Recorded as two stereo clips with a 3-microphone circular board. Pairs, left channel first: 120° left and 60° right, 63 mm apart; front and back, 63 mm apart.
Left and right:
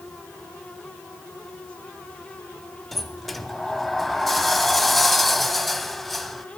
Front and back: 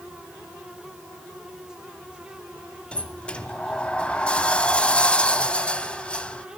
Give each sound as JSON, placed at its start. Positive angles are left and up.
{"t": 2.9, "sound": "a sliding door", "azimuth_deg": 30, "distance_m": 0.9}